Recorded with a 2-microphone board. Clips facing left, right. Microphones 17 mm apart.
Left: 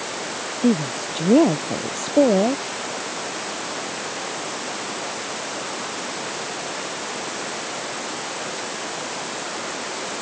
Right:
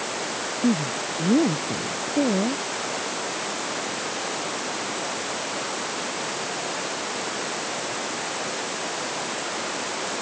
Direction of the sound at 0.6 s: 85° left.